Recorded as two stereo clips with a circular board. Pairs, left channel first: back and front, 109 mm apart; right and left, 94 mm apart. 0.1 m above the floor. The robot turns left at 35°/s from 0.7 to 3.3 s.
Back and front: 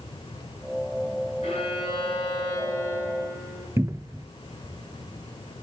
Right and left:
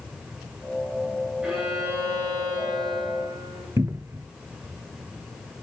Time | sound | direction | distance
1.4 | a violin | 170° left | 7 m
3.8 | a cupboard door | 50° left | 0.7 m